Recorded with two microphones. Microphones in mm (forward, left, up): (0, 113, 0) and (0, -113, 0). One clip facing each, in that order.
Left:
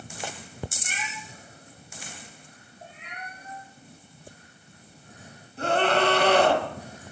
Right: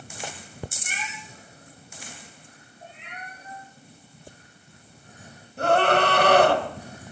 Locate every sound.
0.8 s a cat meowing: 15° right (ahead or behind), 4.5 m
2.8 s a cat meowing: 45° left (ahead or behind), 5.5 m
5.6 s a scream: 70° right (ahead or behind), 2.5 m